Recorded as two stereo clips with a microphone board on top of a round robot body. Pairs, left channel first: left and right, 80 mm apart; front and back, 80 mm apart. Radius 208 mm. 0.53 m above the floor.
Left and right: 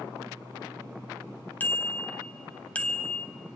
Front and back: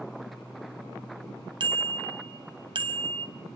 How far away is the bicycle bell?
About 4 m.